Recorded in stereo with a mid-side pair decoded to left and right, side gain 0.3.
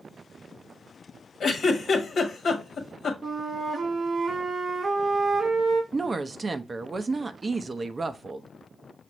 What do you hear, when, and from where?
1.4 s a giggle: 70° left, 1.2 m
3.2 s a flute: 60° right, 0.7 m
5.9 s a woman speaking: 45° right, 0.6 m